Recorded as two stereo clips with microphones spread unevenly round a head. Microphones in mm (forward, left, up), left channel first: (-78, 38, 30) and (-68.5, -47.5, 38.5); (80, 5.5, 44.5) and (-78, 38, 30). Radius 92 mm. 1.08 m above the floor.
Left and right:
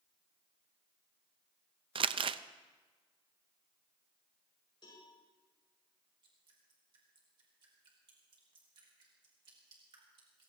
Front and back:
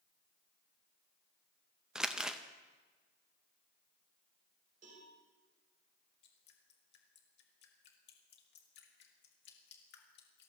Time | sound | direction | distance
1.9 | crumpling | 105° right | 0.5 m
4.8 | a cowbell | 130° left | 6.5 m
6.2 | dripping | 35° right | 2 m